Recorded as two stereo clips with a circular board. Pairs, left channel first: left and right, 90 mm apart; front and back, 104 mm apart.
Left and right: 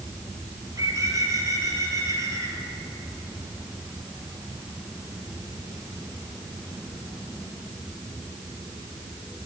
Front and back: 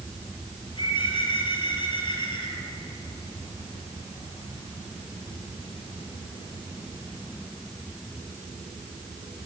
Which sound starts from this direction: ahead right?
A bird, at 0.6 s.